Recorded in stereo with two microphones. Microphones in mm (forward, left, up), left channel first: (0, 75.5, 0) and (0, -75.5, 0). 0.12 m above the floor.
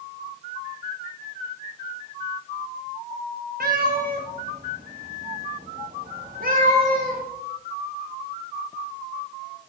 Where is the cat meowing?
85° right, 2 m; by 7.2 s 65° right (ahead or behind), 4.5 m.